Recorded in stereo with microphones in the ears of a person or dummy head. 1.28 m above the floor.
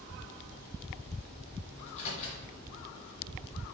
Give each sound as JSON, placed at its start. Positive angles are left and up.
{"t": 1.8, "sound": "a microwave", "side_deg": 40, "distance_m": 0.7}